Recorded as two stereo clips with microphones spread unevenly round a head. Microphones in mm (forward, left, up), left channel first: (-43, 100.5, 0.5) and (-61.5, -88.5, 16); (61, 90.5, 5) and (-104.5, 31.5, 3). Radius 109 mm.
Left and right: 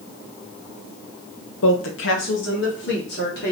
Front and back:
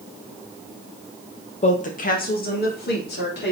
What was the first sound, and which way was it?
A woman speaking, 70° left.